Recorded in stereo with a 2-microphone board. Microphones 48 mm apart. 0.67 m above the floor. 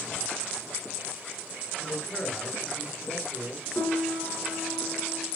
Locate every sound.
1.8 s a man speaking: 20° left (ahead or behind), 8 m
3.8 s a piano: 60° left (ahead or behind), 3.5 m